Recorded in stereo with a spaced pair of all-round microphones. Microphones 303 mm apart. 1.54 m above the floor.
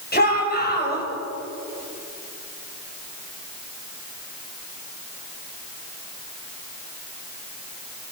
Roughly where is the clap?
No clap in this recording.